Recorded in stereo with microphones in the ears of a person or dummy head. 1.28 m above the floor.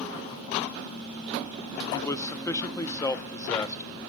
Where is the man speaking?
15° left (ahead or behind), 0.9 m.